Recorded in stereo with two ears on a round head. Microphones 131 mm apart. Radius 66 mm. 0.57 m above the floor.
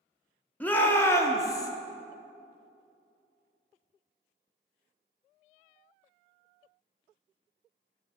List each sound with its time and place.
0.6 s a shout: 10° left (ahead or behind), 0.7 m; by 1.7 s 25° left (ahead or behind), 0.7 m